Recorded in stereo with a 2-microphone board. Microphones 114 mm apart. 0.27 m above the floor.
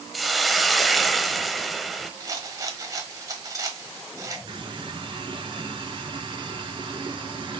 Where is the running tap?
45° right (ahead or behind), 2 m.